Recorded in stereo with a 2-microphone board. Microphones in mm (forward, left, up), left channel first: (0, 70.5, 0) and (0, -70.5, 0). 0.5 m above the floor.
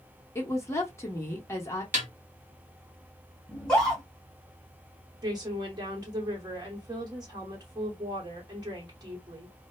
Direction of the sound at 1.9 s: 60° right (ahead or behind).